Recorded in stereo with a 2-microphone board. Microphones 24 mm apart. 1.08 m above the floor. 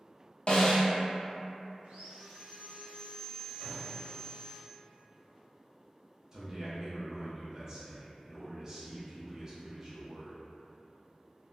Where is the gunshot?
5° right (ahead or behind), 1.3 m.